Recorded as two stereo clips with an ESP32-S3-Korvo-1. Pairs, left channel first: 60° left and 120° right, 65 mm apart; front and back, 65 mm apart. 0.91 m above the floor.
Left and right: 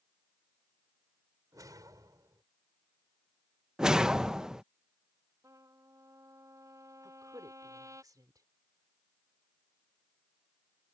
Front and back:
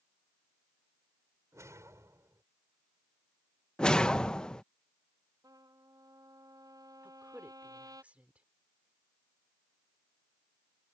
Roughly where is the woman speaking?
Right.